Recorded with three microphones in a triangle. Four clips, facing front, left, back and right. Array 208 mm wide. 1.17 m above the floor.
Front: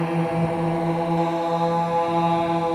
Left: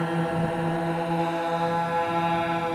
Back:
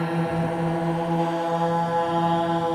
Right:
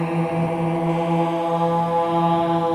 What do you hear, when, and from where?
0.0 s a drone: 55° right; by 2.8 s 75° right